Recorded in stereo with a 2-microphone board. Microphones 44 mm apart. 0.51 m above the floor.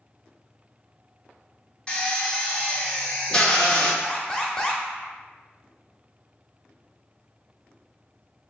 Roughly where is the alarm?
Centre.